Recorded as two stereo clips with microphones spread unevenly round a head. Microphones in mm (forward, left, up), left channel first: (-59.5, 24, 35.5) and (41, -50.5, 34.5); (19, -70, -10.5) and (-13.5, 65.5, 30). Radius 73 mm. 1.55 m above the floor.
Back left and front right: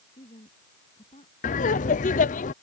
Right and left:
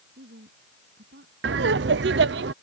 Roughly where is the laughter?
Behind left.